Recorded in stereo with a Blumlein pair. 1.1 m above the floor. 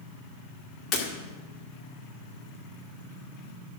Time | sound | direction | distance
0.9 | breaking glass | 30° left | 1.9 m